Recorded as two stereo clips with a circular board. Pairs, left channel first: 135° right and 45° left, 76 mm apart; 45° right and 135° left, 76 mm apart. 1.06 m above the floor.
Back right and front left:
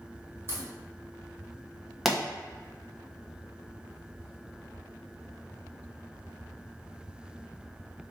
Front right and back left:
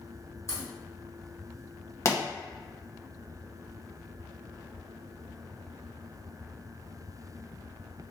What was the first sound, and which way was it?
A crack, 5° right.